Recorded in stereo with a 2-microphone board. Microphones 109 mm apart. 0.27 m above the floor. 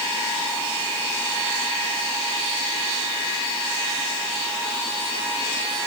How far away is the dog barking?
No dog barking in this recording.